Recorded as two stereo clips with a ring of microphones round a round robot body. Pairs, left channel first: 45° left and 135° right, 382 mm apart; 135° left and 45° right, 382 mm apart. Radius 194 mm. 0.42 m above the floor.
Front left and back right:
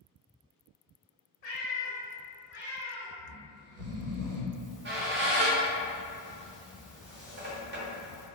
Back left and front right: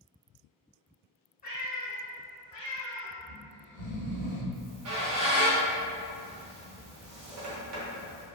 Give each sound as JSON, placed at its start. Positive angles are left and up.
{"t": 1.4, "sound": "a cat meowing", "azimuth_deg": 65, "distance_m": 1.1}
{"t": 3.2, "sound": "snoring", "azimuth_deg": -145, "distance_m": 0.7}
{"t": 4.5, "sound": "a squeak", "azimuth_deg": -80, "distance_m": 0.9}